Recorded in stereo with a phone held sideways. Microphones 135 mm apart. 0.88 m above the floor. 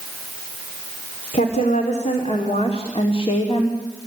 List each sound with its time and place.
1.3 s a woman speaking: 60° left (ahead or behind), 3 m; by 3.8 s 40° left (ahead or behind), 2.5 m